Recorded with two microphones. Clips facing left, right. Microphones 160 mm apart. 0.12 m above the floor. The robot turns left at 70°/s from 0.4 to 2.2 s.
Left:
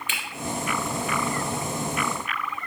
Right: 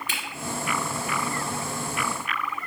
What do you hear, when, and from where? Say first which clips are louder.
0.1 s a finger snap: right 1 dB; 40° right (ahead or behind), 2 m